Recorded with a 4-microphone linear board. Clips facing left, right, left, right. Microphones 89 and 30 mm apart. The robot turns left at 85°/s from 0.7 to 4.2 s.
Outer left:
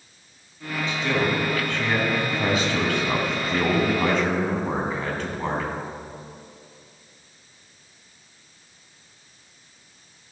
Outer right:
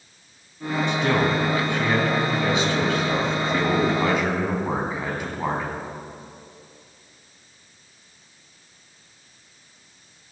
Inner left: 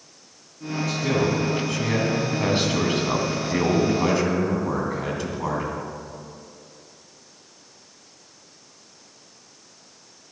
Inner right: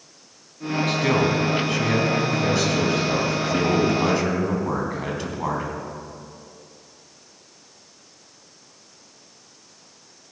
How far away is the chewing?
No chewing in this recording.